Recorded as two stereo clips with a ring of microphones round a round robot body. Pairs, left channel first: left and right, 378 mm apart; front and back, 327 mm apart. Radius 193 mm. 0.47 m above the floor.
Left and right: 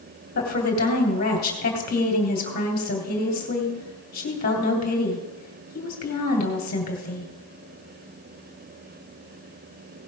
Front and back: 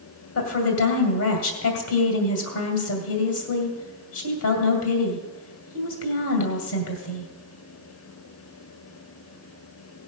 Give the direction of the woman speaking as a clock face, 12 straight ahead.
11 o'clock.